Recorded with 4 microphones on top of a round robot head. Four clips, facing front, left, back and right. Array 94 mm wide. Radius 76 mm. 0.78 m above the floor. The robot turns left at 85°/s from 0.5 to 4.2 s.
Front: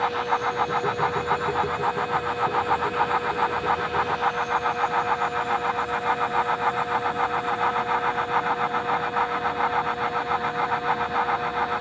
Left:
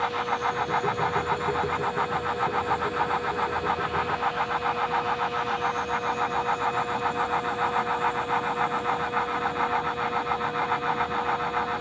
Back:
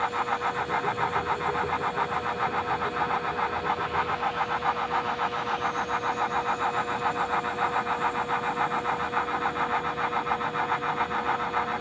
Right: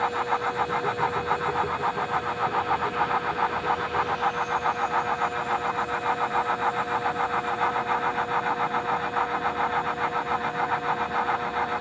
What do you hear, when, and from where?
Only background noise.